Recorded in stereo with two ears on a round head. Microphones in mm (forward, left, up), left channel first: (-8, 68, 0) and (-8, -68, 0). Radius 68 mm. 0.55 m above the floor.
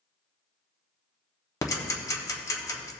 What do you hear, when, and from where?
1.6 s ticking: 20° left (ahead or behind), 0.9 m